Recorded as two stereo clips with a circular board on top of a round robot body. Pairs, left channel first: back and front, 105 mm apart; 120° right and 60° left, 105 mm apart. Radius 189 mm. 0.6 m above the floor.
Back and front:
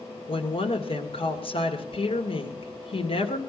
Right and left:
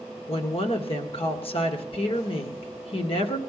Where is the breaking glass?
I don't hear breaking glass.